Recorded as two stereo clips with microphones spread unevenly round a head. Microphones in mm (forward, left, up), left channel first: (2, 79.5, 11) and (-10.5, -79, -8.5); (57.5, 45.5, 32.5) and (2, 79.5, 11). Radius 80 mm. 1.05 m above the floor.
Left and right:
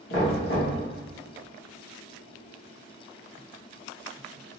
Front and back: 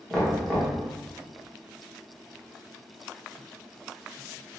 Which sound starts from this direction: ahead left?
Knocking, at 0.1 s.